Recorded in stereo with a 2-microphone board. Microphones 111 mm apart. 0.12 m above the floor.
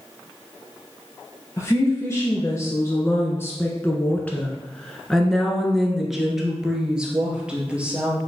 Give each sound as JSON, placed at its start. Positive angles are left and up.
{"t": 1.6, "sound": "a woman speaking", "side_deg": 30, "distance_m": 2.0}